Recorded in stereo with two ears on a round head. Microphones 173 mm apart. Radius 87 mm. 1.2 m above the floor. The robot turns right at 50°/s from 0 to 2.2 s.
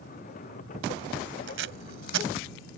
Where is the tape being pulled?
65° right (ahead or behind); by 2.3 s 70° right (ahead or behind).